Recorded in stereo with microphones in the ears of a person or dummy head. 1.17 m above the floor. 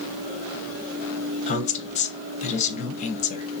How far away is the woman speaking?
About 0.8 m.